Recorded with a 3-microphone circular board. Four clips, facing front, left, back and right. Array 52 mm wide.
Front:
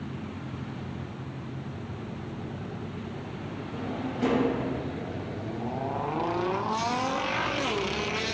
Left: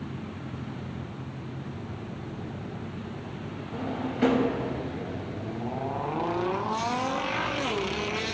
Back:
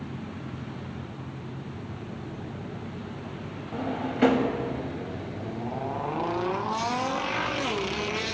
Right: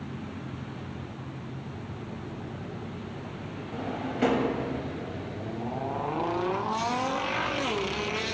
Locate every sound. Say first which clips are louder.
3.7 s a drawer: left 1 dB, back 4 dB; 170° right, 0.7 m